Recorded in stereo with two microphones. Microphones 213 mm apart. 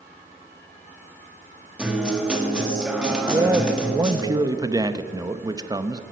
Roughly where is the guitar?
Centre.